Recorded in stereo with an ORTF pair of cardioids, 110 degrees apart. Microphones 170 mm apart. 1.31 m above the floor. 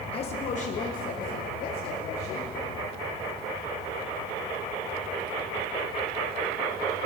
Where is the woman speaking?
35° left, 1.1 m; by 2.5 s 65° left, 3.5 m.